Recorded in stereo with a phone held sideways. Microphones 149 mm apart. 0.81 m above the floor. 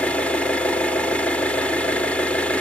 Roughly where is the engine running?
Centre.